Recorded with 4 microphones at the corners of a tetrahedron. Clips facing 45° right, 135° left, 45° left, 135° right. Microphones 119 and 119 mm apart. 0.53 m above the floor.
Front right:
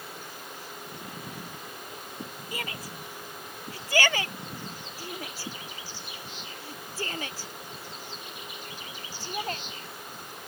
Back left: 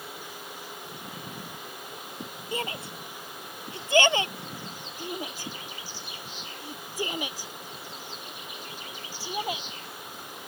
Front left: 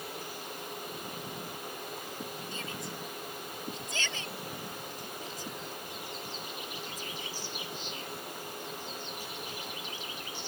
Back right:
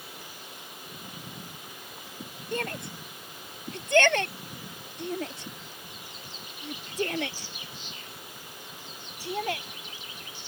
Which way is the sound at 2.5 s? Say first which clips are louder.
Back left 6 dB, back right 6 dB; 160° right.